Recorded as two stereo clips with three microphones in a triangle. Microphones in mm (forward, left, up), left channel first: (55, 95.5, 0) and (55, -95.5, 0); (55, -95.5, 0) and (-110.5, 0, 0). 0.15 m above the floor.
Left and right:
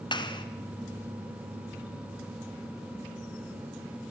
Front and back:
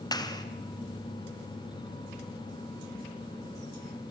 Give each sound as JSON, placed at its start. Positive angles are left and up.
{"t": 0.1, "sound": "a clap", "azimuth_deg": 30, "distance_m": 1.6}